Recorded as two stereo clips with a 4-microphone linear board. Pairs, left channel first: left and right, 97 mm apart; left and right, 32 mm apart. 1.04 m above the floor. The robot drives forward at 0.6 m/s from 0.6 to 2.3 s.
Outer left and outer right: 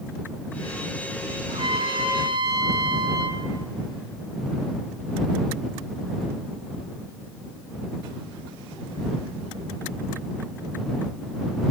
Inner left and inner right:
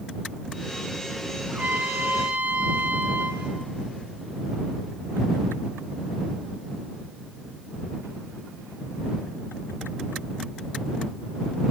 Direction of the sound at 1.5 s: 55° right (ahead or behind).